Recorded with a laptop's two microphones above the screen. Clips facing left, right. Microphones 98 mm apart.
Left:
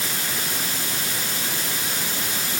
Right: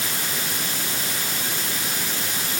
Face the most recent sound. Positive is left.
No sound to turn to.